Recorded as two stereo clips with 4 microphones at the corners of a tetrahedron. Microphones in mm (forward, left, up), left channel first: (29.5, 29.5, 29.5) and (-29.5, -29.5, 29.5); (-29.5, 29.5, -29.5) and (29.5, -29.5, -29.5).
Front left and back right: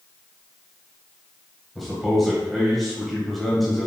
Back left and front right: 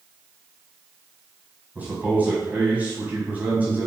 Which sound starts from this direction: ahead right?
A man speaking, at 1.8 s.